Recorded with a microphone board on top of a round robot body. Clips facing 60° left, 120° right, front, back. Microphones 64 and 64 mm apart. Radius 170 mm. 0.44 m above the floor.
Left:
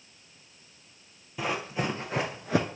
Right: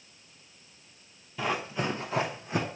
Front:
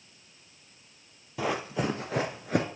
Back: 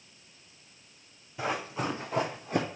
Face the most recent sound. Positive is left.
turn(degrees=50)